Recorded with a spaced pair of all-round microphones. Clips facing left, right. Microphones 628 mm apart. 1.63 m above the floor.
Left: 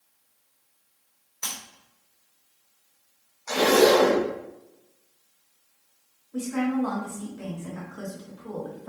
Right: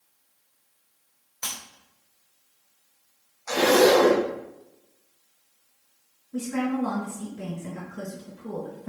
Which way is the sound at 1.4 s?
20° right (ahead or behind).